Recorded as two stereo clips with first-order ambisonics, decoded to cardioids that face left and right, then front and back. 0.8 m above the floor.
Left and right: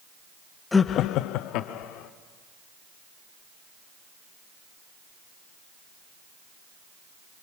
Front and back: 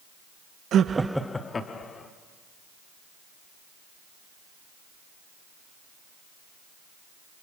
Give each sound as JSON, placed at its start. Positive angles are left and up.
{"t": 0.7, "sound": "laughter", "azimuth_deg": 165, "distance_m": 0.6}